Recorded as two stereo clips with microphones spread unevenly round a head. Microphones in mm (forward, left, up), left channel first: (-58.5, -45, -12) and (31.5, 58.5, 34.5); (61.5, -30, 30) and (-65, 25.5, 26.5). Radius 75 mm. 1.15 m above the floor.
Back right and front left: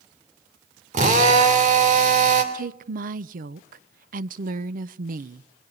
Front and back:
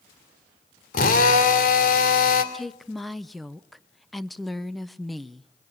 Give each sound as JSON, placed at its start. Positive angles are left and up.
{"t": 0.9, "sound": "a drill", "azimuth_deg": 10, "distance_m": 3.0}
{"t": 2.5, "sound": "a woman speaking", "azimuth_deg": 65, "distance_m": 0.8}